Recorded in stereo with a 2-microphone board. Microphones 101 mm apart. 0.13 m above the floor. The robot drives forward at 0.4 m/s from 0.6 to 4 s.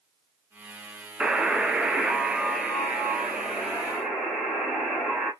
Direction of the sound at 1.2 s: 5° right (ahead or behind).